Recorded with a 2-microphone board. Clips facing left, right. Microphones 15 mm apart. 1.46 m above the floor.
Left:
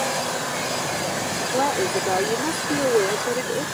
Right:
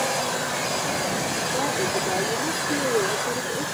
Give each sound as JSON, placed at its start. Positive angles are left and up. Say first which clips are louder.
{"t": 1.5, "sound": "a woman speaking", "louder": "left 5 dB", "side_deg": 70}